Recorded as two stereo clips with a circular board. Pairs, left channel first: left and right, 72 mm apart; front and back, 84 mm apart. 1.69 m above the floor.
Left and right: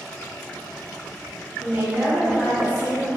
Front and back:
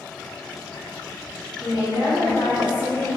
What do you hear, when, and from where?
1.6 s a woman speaking: 155° right, 1.4 m